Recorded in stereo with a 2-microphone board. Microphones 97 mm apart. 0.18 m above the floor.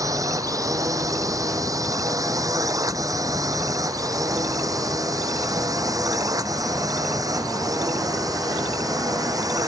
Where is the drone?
40° right (ahead or behind).